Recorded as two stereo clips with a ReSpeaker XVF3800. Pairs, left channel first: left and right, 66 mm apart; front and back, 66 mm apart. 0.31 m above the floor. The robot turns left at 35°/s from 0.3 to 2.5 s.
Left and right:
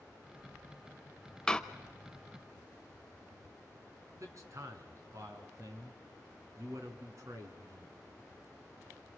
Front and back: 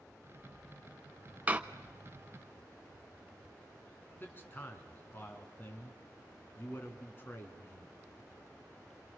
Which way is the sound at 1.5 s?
155° left.